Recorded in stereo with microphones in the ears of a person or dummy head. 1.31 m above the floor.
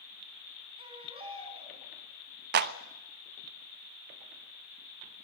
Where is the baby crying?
30° right (ahead or behind), 5 m.